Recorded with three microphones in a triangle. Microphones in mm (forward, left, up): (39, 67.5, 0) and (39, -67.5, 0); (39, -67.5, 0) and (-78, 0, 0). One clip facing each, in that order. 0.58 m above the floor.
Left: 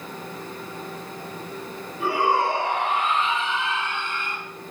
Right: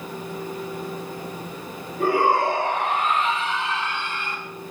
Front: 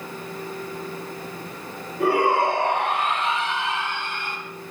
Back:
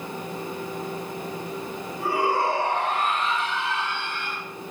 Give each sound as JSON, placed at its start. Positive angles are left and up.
{"t": 2.0, "sound": "a shout", "azimuth_deg": -45, "distance_m": 9.0}